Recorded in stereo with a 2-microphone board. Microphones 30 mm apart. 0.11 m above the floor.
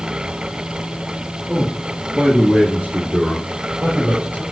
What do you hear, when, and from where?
1.5 s a man speaking: 25° right (ahead or behind), 1.8 m; by 4.4 s 60° right (ahead or behind), 4 m